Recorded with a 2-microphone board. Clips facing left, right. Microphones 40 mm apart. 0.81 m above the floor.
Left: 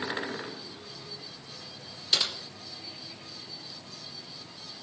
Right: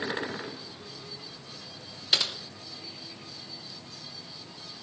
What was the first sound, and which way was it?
Typing on a keyboard, 25° right (ahead or behind).